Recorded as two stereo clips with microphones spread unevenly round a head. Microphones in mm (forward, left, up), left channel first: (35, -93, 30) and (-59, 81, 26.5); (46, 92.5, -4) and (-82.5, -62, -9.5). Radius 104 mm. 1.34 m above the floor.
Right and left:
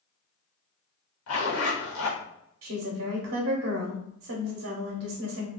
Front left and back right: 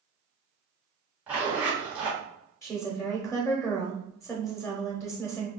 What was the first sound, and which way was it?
A zipper, 45° right.